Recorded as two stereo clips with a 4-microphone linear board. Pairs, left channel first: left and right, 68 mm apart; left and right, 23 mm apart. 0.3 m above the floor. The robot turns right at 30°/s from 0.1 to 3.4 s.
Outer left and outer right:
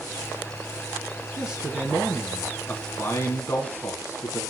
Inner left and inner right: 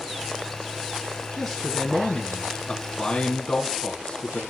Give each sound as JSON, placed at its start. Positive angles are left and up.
{"t": 1.4, "sound": "a man speaking", "azimuth_deg": -20, "distance_m": 2.5}